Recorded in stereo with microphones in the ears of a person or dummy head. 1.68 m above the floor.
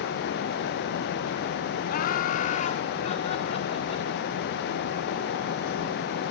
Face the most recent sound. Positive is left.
turn(degrees=35)  # may be behind; listen again after turning